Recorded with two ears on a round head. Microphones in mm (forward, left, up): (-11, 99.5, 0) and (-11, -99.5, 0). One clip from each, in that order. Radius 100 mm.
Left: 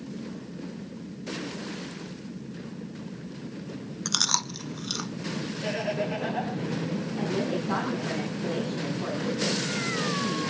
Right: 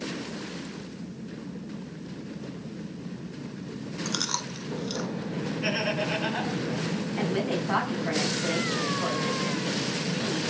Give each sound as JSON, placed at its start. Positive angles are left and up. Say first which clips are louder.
{"t": 4.0, "sound": "chewing", "louder": "left 5 dB", "side_deg": 20, "distance_m": 0.7}
{"t": 5.6, "sound": "laughter", "louder": "right 1 dB", "side_deg": -85, "distance_m": 9.0}
{"t": 7.2, "sound": "a woman speaking", "louder": "right 1 dB", "side_deg": -70, "distance_m": 5.5}